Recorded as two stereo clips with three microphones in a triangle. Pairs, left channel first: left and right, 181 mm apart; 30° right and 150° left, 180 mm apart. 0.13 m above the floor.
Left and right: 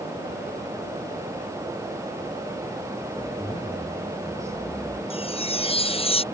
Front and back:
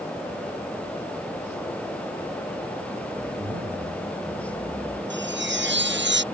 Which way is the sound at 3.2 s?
155° left.